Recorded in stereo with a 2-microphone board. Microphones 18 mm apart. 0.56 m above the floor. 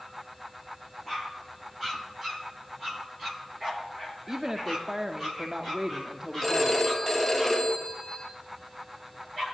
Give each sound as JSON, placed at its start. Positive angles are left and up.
{"t": 4.3, "sound": "a woman speaking", "side_deg": -20, "distance_m": 0.7}
{"t": 6.4, "sound": "a phone ringing", "side_deg": 10, "distance_m": 2.5}